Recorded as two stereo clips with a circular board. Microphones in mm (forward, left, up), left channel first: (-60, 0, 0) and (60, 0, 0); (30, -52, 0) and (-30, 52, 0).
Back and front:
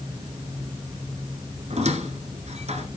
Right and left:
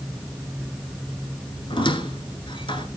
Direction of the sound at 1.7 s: 15° right.